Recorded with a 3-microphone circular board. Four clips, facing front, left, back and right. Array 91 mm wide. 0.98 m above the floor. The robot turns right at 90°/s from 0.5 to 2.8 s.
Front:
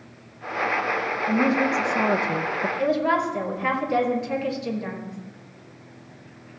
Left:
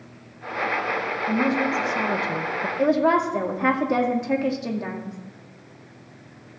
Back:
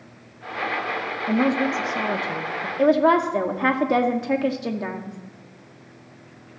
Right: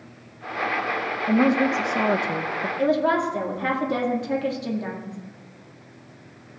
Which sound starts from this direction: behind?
A woman speaking, at 2.8 s.